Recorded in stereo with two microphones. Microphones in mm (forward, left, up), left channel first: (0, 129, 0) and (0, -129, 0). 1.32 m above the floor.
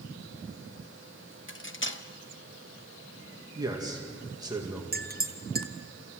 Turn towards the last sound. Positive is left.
turn(degrees=-35)  # may be behind; listen again after turning